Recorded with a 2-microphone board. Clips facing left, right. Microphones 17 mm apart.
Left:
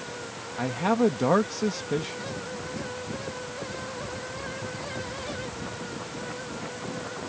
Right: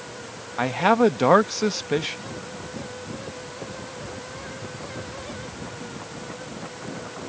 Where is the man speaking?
30° right (ahead or behind).